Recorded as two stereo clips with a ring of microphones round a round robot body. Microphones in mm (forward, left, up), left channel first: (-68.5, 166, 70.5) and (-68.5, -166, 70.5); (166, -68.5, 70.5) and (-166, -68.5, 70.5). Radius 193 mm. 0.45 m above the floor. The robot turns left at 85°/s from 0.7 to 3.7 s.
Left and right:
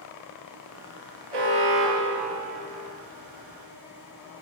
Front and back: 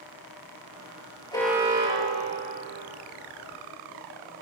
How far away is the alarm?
About 9 m.